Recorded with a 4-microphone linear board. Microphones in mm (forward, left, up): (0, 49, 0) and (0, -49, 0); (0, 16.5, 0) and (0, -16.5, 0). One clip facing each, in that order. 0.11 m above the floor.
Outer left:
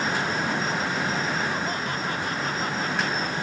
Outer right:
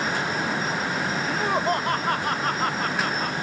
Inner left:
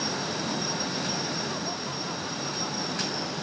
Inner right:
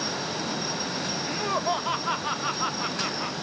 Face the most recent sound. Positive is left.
turn(degrees=-50)  # may be behind; listen again after turning